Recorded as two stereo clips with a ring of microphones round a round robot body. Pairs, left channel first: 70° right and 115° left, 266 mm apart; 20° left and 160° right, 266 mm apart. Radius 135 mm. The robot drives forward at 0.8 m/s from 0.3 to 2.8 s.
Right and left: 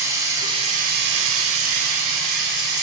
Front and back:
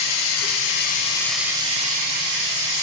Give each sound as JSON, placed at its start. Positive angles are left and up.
{"t": 0.0, "sound": "running water", "azimuth_deg": 35, "distance_m": 0.9}